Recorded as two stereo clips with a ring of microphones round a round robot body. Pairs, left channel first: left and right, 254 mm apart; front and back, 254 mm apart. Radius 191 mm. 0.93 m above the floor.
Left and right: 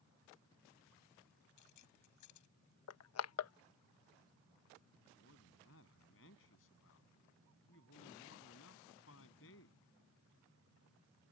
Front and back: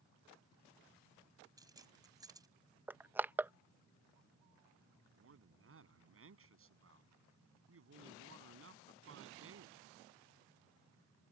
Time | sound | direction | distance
1.6 | keys jangling | 105° left | ?
2.9 | crushing | 95° left | ?
5.2 | a man speaking | 145° left | ?